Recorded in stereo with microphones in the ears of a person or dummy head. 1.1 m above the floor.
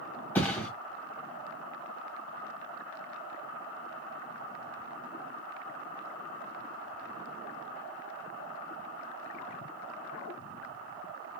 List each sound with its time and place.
0.3 s a thud: 15° left (ahead or behind), 2 m